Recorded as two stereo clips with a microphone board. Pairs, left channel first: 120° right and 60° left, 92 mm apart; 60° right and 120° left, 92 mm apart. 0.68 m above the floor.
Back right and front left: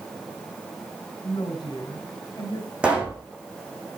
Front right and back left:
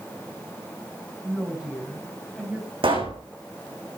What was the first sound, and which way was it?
A woman speaking, 165° right.